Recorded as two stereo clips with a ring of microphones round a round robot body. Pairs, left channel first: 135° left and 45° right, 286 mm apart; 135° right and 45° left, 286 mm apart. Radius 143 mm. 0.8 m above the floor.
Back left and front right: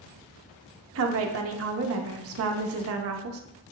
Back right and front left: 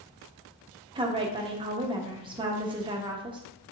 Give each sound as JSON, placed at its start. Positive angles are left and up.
{"t": 0.9, "sound": "a woman speaking", "azimuth_deg": -25, "distance_m": 0.7}